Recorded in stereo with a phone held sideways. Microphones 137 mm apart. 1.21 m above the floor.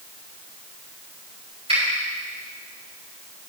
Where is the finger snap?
45° right (ahead or behind), 4.5 m.